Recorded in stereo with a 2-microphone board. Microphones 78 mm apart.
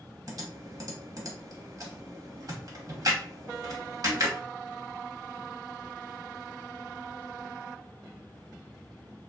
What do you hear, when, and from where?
0.3 s typing on a keyboard: 50° right (ahead or behind), 0.9 m